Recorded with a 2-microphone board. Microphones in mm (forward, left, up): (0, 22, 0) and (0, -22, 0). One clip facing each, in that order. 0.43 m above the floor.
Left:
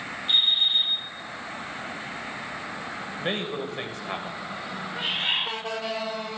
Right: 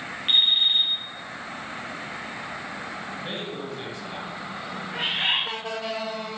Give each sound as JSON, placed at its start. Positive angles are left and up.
{"t": 0.3, "sound": "an alarm clock", "side_deg": -65, "distance_m": 5.0}
{"t": 3.2, "sound": "a man speaking", "side_deg": 55, "distance_m": 2.0}
{"t": 4.9, "sound": "a bird", "side_deg": -85, "distance_m": 4.5}